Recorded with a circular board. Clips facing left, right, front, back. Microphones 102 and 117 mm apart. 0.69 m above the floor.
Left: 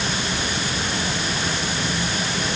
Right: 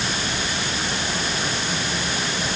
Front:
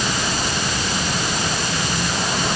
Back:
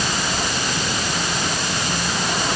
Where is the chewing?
No chewing in this recording.